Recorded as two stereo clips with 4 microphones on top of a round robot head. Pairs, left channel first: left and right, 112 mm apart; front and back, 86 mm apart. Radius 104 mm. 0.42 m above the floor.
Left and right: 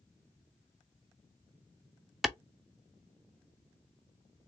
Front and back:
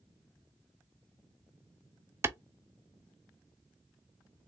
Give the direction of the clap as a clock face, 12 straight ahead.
6 o'clock.